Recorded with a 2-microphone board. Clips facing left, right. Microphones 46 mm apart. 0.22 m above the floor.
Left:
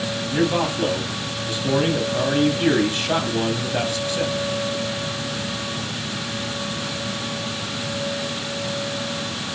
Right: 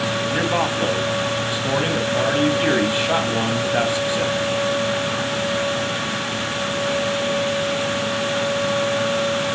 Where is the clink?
I don't hear a clink.